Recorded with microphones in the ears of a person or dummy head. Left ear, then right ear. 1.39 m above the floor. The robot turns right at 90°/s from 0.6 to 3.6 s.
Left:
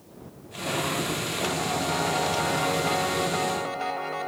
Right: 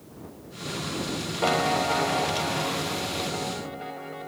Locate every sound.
1.4 s a piano: 55° right; by 4.3 s 140° left